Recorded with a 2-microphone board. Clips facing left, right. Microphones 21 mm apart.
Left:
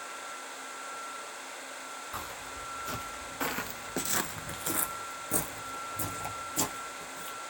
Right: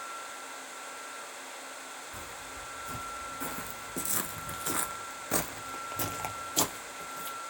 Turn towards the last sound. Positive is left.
turn(degrees=-55)  # may be behind; listen again after turning